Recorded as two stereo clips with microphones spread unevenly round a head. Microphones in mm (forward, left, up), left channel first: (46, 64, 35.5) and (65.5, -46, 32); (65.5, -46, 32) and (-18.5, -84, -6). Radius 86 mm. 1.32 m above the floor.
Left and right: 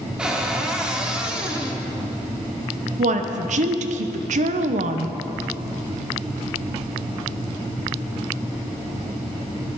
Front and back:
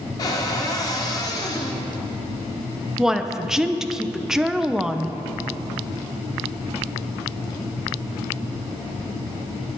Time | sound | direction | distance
0.2 | a cupboard door | 5° left | 1.4 m
3.0 | a woman speaking | 75° right | 0.7 m